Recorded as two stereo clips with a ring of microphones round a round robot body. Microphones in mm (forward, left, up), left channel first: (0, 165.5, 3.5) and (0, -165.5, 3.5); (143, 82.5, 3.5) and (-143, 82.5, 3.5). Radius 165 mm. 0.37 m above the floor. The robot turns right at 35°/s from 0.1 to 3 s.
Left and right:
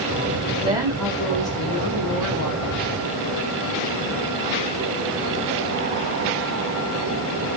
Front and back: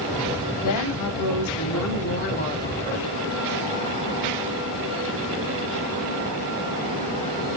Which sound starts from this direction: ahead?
A woman speaking, at 0.6 s.